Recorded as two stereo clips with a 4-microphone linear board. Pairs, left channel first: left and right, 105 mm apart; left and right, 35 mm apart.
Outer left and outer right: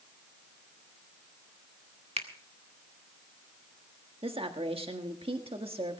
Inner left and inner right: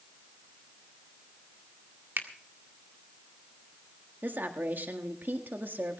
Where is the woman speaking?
60° right (ahead or behind), 1.6 m.